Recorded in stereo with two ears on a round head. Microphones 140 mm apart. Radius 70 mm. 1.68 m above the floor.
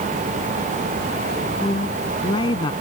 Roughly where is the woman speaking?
Left.